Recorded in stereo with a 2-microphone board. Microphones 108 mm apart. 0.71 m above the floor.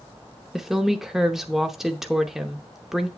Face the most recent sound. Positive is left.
turn(degrees=-5)  # may be behind; listen again after turning